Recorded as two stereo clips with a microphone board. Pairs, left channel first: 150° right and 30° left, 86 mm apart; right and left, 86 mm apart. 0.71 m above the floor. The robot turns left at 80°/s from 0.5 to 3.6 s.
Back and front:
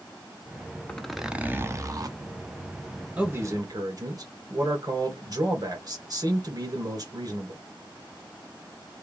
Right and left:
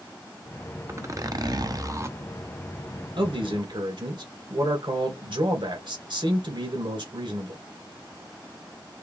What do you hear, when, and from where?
0.9 s a zipper: 140° left, 0.7 m; by 2.2 s 35° left, 0.7 m
3.2 s a man speaking: 105° left, 2.5 m; by 7.6 s 70° left, 2.5 m